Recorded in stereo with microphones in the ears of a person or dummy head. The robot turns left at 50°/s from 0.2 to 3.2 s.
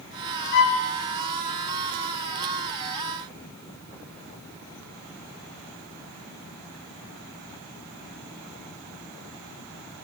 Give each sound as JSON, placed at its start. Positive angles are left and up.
{"t": 0.5, "sound": "a violin", "side_deg": 50, "distance_m": 0.5}